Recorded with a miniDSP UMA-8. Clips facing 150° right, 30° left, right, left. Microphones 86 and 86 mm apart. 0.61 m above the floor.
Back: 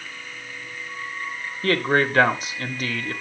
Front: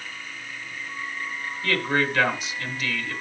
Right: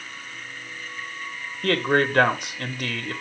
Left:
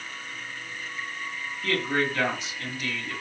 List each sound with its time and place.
1.6 s a man speaking: 110° right, 1.2 m